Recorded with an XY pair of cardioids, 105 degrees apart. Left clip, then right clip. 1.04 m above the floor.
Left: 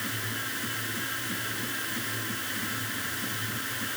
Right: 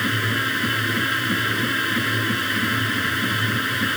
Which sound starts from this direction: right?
A machine running, at 0.0 s.